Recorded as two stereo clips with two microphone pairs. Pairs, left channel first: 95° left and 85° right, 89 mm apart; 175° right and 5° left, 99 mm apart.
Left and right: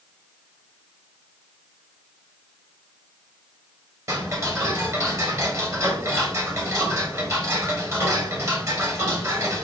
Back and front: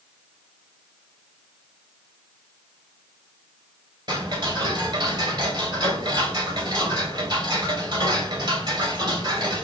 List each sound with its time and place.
4.1 s ticking: 35° right, 2.0 m